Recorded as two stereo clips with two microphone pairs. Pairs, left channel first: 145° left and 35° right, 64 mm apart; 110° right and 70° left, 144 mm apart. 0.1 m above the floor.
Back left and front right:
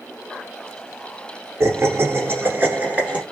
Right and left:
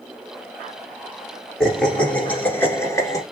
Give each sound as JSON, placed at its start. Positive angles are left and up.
{"t": 1.6, "sound": "laughter", "azimuth_deg": -25, "distance_m": 1.6}